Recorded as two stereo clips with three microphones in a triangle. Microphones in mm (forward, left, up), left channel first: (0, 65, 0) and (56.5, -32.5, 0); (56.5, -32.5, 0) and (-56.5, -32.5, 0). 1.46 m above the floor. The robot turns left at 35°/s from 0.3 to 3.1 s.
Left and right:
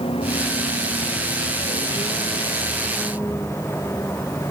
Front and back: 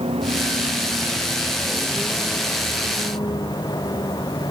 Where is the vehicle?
150° left; by 4.5 s 55° left.